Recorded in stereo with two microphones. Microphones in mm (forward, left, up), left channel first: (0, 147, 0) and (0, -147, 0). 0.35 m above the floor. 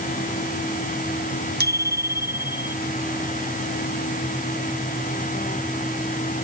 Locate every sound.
1.6 s a bicycle bell: 35° right (ahead or behind); by 2.8 s 30° right (ahead or behind)